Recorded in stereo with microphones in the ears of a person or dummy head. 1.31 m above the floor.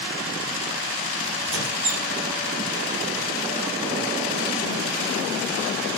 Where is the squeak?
75° right (ahead or behind), 2.5 m.